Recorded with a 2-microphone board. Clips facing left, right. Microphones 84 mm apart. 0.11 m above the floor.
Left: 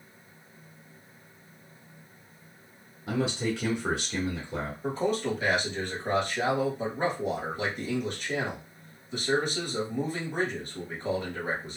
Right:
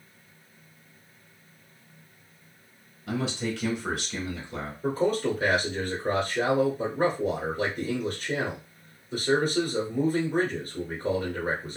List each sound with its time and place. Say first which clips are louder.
3.1 s a man speaking: left 1 dB; 20° left (ahead or behind), 1.1 m
4.8 s a man speaking: right 4 dB; 40° right (ahead or behind), 1.5 m